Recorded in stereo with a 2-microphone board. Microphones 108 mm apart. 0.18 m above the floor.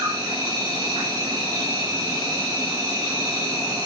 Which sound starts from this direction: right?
An insect, at 0.0 s.